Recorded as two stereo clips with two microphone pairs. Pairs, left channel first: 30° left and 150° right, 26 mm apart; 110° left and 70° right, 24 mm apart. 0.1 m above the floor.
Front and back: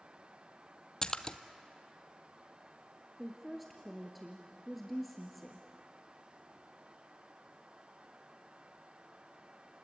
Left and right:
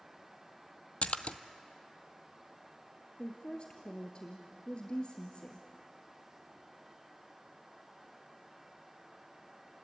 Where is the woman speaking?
115° left, 1.9 m.